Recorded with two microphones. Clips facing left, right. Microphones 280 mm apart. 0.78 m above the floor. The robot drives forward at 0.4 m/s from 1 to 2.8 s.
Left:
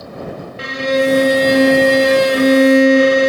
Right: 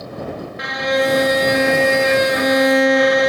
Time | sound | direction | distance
0.6 | a violin | 30° left (ahead or behind) | ?